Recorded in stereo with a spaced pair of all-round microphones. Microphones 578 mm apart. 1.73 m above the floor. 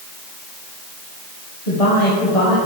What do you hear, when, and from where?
1.7 s a man speaking: 80° left, 1.8 m